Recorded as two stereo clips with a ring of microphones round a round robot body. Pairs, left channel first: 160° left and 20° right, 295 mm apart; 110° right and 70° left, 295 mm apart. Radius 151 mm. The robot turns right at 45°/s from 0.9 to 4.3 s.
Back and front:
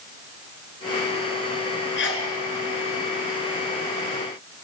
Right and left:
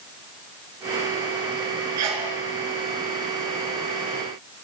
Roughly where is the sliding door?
I don't hear a sliding door.